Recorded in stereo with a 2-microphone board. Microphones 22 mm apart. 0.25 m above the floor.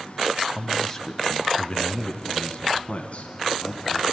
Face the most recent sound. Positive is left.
turn(degrees=60)  # may be behind; listen again after turning